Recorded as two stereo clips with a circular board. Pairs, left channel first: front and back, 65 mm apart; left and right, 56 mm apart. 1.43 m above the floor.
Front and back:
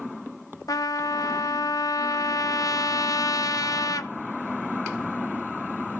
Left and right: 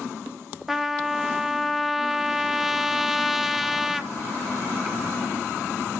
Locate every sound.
0.7 s a trumpet: 5° right, 0.6 m